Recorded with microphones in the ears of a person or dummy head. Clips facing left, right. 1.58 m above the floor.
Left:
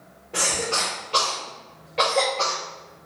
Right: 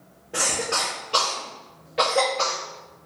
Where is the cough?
10° right (ahead or behind), 0.7 m.